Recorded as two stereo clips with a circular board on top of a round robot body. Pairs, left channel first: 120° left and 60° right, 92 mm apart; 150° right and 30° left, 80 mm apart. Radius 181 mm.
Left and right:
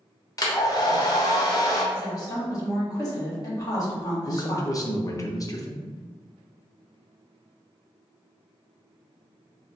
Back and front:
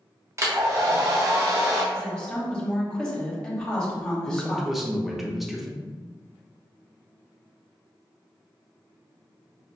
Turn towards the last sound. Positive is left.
turn(degrees=115)